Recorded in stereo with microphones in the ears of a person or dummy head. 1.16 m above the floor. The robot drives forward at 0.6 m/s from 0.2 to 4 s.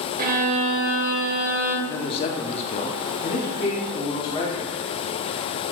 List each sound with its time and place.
0.2 s a violin: 40° right (ahead or behind), 0.5 m; by 1.8 s 15° right (ahead or behind), 1.1 m
1.9 s a man speaking: 25° left (ahead or behind), 0.8 m; by 4.7 s 20° left (ahead or behind), 1.0 m